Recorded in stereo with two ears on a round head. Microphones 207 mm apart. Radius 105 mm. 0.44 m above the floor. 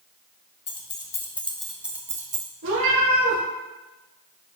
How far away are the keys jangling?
About 1.7 m.